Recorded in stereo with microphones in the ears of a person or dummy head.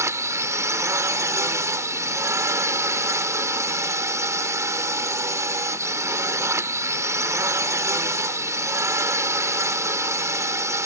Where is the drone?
15° right (ahead or behind).